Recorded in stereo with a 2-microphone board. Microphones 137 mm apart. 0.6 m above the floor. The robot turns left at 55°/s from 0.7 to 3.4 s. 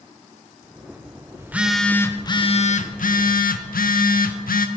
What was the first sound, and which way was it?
A phone buzzing, 160° right.